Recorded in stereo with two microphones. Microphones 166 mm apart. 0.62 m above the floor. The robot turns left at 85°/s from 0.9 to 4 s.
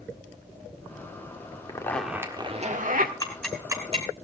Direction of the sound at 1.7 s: 30° left.